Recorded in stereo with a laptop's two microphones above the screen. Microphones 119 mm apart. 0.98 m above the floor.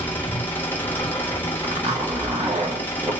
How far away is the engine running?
About 1.1 m.